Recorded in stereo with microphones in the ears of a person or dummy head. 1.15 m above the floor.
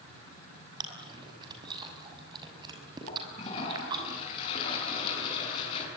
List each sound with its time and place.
0.8 s chewing: 20° right (ahead or behind), 6 m
3.1 s a toilet flushing: 45° left (ahead or behind), 7.5 m